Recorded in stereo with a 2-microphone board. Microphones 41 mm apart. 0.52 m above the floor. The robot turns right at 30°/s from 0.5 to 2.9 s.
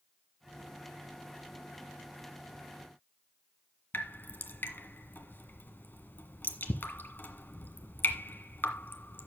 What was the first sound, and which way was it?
Dripping, 55° left (ahead or behind).